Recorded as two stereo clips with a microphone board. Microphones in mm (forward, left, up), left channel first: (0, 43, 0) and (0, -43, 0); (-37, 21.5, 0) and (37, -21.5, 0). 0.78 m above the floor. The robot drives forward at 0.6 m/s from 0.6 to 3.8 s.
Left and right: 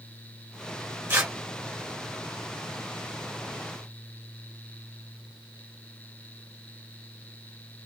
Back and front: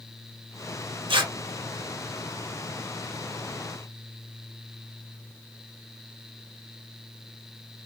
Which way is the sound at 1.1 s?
20° right.